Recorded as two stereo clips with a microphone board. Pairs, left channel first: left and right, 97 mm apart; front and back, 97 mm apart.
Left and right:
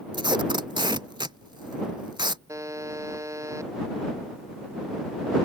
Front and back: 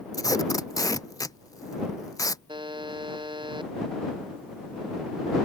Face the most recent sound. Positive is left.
turn(degrees=-145)